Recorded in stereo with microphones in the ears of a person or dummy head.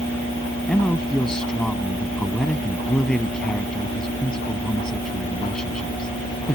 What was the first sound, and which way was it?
A man speaking, 5° left (ahead or behind).